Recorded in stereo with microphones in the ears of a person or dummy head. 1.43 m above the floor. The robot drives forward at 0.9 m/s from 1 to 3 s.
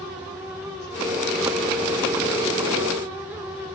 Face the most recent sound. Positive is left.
No sound to turn to.